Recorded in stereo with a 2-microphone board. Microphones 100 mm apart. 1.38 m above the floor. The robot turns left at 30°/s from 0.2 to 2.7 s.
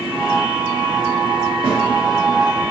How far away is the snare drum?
About 1.3 m.